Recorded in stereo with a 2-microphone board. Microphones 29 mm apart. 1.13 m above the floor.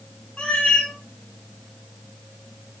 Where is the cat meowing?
40° left (ahead or behind), 0.9 m.